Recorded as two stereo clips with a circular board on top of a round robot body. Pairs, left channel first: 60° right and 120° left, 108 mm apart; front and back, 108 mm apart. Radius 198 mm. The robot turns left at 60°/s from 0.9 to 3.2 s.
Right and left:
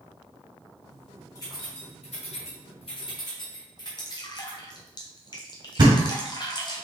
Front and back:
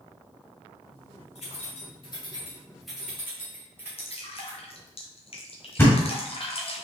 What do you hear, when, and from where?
1.4 s keys jangling: straight ahead, 2 m; by 4.6 s 110° right, 2 m
4.0 s dripping: 15° right, 1.3 m
5.8 s a thud: 70° left, 1.9 m